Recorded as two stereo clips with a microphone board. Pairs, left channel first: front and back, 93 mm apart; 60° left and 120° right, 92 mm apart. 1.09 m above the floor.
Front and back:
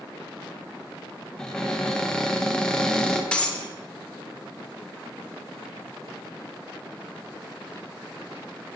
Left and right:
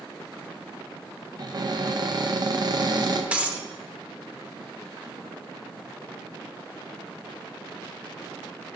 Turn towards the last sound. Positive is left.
turn(degrees=-65)